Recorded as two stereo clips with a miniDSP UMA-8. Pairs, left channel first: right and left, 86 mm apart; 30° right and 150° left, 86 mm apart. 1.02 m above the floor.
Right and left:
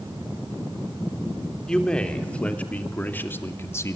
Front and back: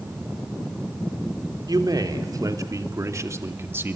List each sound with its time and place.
1.7 s a man speaking: 170° right, 3.5 m; by 4.0 s 145° right, 1.9 m